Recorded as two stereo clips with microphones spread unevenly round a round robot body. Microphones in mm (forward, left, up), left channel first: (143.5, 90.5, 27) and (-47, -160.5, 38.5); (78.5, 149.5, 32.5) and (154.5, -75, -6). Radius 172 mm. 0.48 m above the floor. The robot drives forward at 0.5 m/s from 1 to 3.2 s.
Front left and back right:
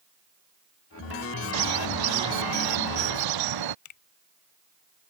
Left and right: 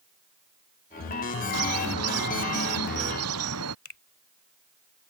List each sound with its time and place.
1.5 s a bird: 120° right
3.9 s a finger snap: 80° left